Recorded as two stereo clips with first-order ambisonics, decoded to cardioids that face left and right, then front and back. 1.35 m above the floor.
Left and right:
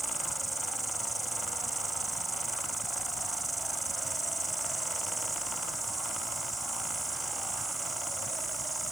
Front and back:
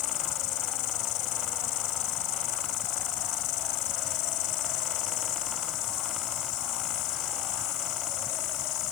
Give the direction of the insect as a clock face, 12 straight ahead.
12 o'clock.